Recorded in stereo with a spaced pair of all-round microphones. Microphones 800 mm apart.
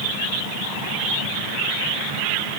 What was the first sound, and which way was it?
Only background noise.